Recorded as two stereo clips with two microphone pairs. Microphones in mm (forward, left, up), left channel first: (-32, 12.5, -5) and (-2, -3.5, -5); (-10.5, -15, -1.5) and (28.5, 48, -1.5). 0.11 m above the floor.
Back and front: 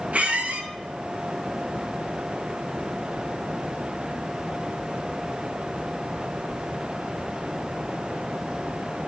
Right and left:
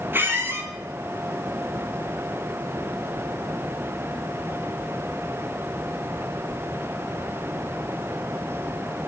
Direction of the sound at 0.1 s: 10° left.